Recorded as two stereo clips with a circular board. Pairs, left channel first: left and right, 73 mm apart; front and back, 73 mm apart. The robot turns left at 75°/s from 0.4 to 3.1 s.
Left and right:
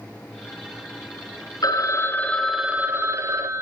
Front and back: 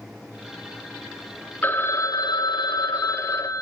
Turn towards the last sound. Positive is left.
turn(degrees=-45)